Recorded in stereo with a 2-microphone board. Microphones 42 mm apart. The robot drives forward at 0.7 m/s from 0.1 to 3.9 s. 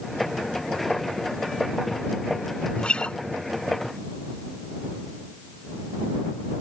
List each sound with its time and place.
2.8 s a guitar: 25° left (ahead or behind)